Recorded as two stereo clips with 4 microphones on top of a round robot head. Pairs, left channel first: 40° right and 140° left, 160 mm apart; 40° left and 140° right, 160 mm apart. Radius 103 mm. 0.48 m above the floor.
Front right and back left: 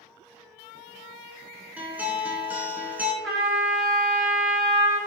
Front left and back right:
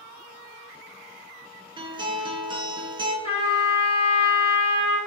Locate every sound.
1.8 s a guitar: 150° right, 0.5 m
3.2 s a trumpet: 40° left, 1.1 m